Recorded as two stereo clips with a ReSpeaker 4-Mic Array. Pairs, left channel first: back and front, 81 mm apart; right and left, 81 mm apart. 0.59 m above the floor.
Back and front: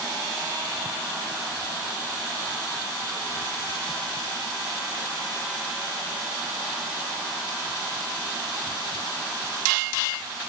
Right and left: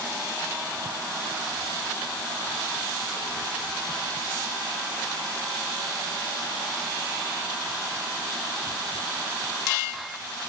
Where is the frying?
I don't hear frying.